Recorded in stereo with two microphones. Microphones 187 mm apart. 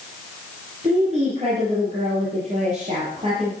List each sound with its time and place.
0.8 s a woman speaking: 35° right (ahead or behind), 6.5 m